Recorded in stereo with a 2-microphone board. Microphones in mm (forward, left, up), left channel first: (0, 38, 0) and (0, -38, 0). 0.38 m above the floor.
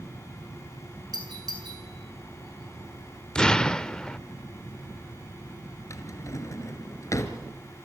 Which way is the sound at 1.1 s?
65° right (ahead or behind).